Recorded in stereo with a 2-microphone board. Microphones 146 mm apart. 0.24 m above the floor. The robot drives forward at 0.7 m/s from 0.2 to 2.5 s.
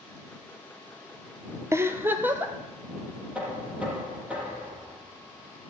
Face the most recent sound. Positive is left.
turn(degrees=-10)  # may be behind; listen again after turning